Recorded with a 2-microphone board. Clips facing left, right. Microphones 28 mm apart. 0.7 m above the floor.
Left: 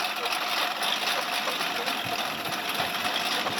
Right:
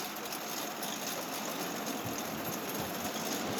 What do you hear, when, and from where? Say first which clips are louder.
0.0 s a lawn mower: left 11 dB; 50° left (ahead or behind)